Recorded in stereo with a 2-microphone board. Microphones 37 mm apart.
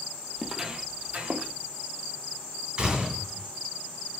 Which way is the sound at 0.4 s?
Centre (ahead or behind).